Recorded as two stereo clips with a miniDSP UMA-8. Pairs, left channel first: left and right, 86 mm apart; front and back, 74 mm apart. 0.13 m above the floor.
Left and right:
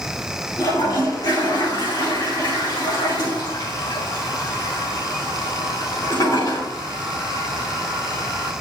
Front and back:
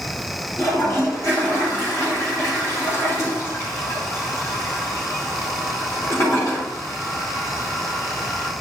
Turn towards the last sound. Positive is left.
turn(degrees=45)